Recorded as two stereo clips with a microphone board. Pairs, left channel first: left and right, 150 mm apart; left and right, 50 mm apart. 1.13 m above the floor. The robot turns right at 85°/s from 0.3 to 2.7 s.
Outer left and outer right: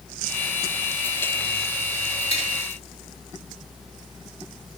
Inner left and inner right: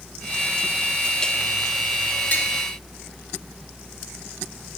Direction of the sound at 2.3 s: 40° left (ahead or behind).